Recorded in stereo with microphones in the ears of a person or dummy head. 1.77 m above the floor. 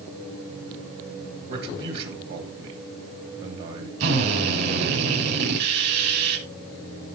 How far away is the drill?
About 6 m.